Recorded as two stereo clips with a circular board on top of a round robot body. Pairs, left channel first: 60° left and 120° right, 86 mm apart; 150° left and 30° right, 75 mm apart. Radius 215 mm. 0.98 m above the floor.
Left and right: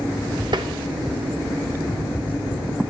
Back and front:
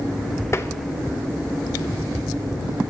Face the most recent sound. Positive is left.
turn(degrees=-155)